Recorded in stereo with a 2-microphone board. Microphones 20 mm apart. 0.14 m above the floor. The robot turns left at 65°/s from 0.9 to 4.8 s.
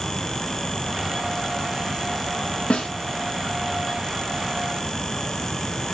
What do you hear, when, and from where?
2.7 s a snare drum: 75° left (ahead or behind), 1.4 m